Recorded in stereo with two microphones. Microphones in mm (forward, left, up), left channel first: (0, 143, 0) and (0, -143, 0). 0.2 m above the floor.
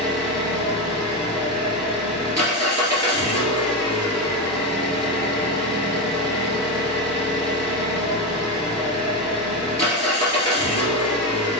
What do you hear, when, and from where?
0.0 s an engine running: 65° left (ahead or behind), 1.8 m